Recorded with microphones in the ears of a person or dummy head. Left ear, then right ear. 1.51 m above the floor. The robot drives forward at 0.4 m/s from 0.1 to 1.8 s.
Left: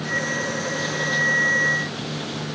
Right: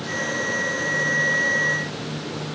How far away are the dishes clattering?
No dishes clattering in this recording.